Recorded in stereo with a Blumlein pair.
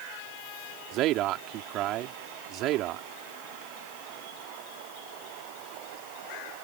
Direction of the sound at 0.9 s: 35° right.